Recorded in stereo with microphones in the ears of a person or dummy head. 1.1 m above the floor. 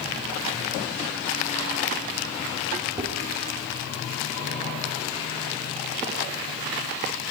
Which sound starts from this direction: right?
Dishes clattering, at 3.0 s.